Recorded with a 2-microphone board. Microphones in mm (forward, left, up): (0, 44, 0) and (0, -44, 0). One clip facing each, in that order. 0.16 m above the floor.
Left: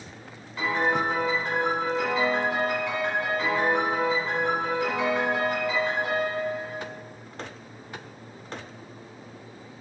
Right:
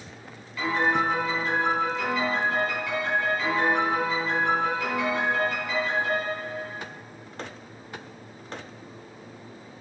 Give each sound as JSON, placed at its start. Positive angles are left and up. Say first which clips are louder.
{"t": 0.6, "sound": "a piano", "louder": "right 1 dB", "side_deg": 25, "distance_m": 1.3}